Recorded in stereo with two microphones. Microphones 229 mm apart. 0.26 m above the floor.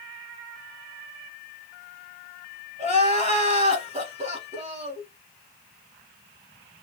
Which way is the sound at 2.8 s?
30° right (ahead or behind).